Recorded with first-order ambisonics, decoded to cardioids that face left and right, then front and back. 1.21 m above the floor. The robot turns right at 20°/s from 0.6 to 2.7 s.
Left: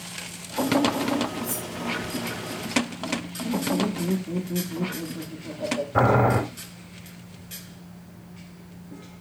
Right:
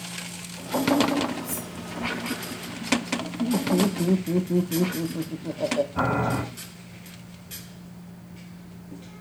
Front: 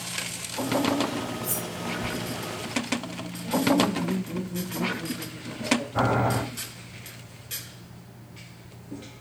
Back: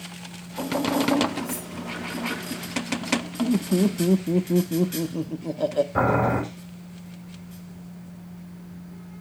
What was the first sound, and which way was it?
Cutlery clinking, 25° left.